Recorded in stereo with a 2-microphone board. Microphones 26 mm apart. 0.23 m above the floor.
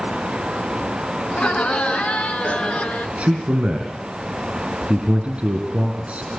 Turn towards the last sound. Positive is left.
turn(degrees=-55)  # may be behind; listen again after turning